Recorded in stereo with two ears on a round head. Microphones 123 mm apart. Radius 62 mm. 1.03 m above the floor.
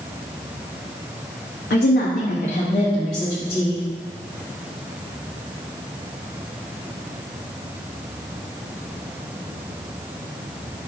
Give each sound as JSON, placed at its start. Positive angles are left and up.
{"t": 1.7, "sound": "a woman speaking", "side_deg": 80, "distance_m": 1.1}